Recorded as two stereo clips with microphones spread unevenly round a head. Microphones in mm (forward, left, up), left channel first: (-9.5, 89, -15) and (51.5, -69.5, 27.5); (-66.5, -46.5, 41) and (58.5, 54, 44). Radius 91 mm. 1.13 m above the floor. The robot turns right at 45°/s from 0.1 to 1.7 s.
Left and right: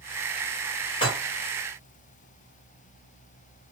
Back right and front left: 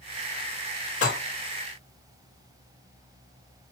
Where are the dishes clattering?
175° left, 2.5 m; by 1.2 s 175° right, 2.5 m.